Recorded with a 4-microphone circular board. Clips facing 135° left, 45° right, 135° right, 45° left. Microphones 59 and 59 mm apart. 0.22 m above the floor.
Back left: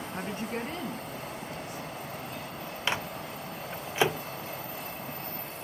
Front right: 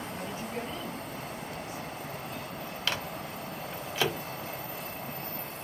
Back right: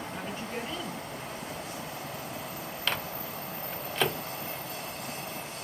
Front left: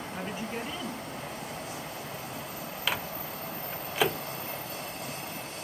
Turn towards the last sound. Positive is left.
turn(degrees=120)